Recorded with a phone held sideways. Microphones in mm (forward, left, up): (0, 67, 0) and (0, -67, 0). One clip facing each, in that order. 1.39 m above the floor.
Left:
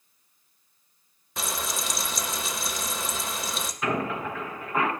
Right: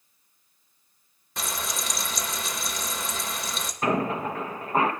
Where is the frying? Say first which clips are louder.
Left 1 dB; centre (ahead or behind), 0.7 m.